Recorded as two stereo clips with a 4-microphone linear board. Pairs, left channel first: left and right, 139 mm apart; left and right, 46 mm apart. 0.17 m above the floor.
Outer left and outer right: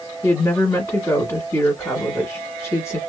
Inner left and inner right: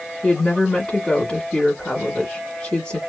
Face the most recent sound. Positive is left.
turn(degrees=20)  # may be behind; listen again after turning